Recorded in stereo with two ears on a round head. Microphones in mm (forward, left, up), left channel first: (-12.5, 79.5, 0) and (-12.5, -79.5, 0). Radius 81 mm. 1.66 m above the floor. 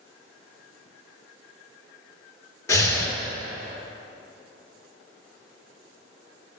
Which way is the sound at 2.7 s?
15° left (ahead or behind).